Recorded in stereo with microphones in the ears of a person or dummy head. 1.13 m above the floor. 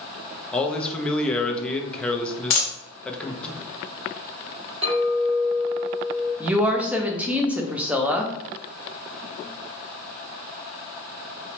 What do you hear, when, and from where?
0.5 s a man speaking: 10° left (ahead or behind), 0.6 m
2.5 s a dropped coin: 35° left (ahead or behind), 0.7 m
4.8 s a clink: 40° right (ahead or behind), 1.3 m
6.4 s a woman speaking: 10° right (ahead or behind), 0.5 m